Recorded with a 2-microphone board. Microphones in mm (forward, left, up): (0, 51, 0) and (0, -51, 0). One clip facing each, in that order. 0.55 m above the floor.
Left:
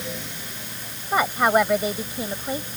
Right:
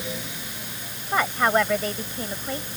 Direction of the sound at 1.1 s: 15° left (ahead or behind).